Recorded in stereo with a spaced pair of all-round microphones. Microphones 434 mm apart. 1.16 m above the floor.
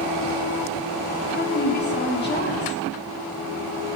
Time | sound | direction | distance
1.3 | a woman speaking | 25° left (ahead or behind) | 2.5 m